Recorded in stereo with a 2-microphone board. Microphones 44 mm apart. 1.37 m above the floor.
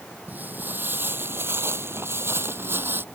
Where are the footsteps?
40° right (ahead or behind); by 3.0 s 50° right (ahead or behind).